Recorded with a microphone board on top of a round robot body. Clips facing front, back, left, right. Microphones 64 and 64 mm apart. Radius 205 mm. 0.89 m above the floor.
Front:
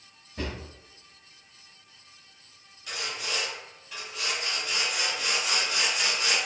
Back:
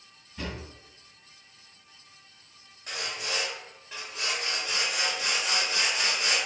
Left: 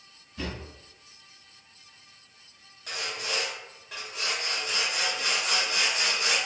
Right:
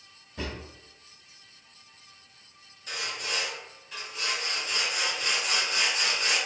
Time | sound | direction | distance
0.4 | a drawer | 40° right | 0.6 m
2.9 | sawing | 120° left | 1.2 m